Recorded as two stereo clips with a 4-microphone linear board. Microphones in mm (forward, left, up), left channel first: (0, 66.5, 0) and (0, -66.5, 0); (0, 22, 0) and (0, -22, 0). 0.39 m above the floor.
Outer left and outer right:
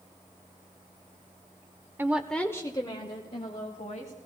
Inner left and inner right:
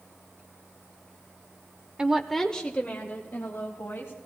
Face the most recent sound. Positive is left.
turn(degrees=60)  # may be behind; listen again after turning